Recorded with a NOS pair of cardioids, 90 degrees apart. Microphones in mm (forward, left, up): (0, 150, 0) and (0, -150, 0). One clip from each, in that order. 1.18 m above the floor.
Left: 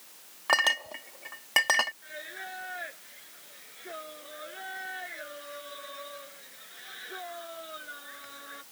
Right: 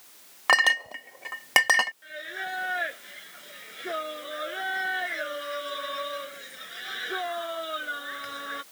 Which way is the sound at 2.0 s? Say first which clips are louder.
Right 6 dB; 65° right.